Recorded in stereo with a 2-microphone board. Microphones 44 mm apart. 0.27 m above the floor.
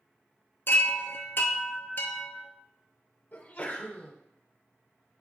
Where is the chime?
55° left (ahead or behind), 0.9 m.